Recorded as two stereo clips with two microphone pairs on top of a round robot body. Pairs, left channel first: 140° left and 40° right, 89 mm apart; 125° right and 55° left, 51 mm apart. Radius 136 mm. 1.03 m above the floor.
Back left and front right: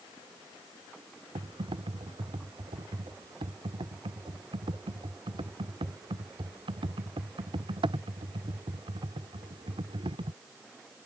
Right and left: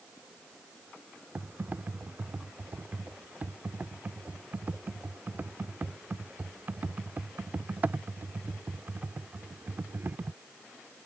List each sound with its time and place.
1.4 s typing on a keyboard: straight ahead